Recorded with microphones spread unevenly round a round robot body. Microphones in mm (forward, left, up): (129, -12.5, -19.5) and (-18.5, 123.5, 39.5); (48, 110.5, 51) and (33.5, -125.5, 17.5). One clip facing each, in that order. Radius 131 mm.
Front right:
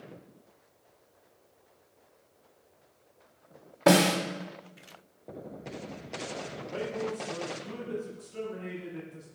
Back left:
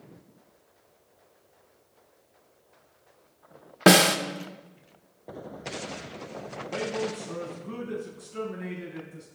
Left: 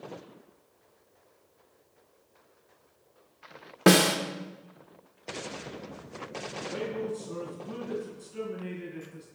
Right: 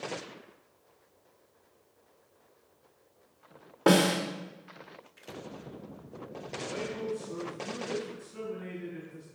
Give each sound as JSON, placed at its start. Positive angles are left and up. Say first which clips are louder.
{"t": 3.9, "sound": "a snare drum", "louder": "back left 3 dB, left 2 dB", "azimuth_deg": 150, "distance_m": 1.3}
{"t": 6.5, "sound": "a man speaking", "louder": "back left 5 dB, left 3 dB", "azimuth_deg": 180, "distance_m": 7.0}